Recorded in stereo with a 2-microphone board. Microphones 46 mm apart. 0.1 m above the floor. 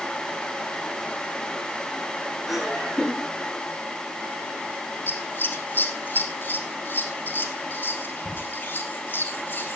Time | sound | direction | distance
2.5 | laughter | 5° right (ahead or behind) | 4.5 m
5.1 | scissors | 40° left (ahead or behind) | 2 m